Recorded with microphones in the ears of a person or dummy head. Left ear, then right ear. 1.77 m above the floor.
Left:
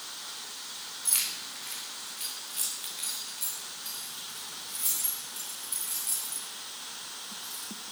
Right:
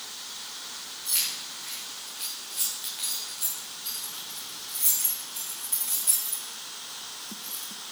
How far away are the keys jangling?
About 3.5 m.